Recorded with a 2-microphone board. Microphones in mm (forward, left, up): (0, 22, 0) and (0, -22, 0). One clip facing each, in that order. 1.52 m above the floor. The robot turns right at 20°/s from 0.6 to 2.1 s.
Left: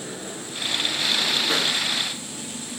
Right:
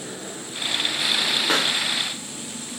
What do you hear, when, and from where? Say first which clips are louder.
1.5 s a pop: right 2 dB; 75° right (ahead or behind), 2.5 m; by 1.8 s 70° right (ahead or behind), 2.5 m